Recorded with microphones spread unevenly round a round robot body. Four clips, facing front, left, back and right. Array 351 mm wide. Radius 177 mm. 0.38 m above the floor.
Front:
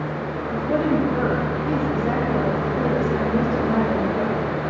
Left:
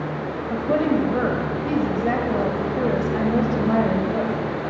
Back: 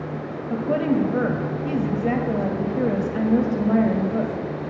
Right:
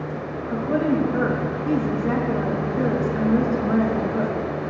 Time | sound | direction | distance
0.5 | a woman speaking | 160° left | 1.8 m